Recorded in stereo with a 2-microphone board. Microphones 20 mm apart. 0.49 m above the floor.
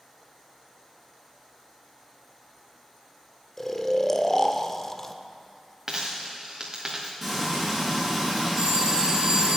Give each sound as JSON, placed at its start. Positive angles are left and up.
{"t": 3.6, "sound": "snoring", "side_deg": 20, "distance_m": 0.7}
{"t": 5.9, "sound": "a dropped coin", "side_deg": -25, "distance_m": 2.5}
{"t": 7.2, "sound": "frying", "side_deg": -5, "distance_m": 5.5}
{"t": 8.6, "sound": "a phone ringing", "side_deg": -30, "distance_m": 1.2}